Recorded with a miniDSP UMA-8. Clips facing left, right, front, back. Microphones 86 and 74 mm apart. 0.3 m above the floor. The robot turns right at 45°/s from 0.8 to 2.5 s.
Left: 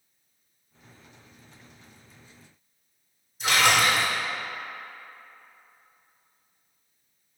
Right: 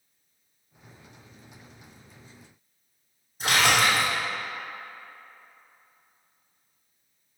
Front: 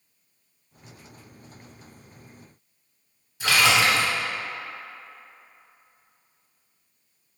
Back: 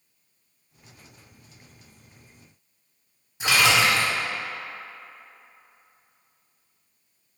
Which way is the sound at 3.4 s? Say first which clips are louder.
Even, even; 115° right.